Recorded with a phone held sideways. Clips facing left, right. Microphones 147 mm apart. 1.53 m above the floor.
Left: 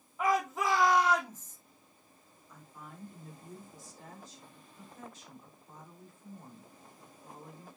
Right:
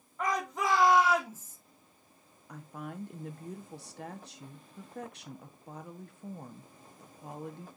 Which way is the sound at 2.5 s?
70° right (ahead or behind).